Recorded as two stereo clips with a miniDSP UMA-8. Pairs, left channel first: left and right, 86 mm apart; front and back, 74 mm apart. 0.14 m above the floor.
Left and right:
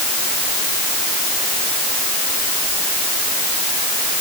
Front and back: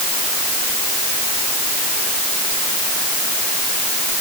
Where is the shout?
No shout in this recording.